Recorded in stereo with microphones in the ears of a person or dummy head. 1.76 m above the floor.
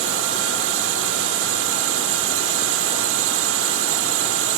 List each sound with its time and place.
0.0 s a drone: 80° right